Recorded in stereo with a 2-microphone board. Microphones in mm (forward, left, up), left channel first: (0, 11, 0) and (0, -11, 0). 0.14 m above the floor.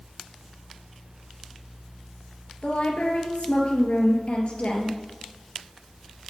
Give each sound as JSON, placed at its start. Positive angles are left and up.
{"t": 2.6, "sound": "a woman speaking", "side_deg": 60, "distance_m": 3.0}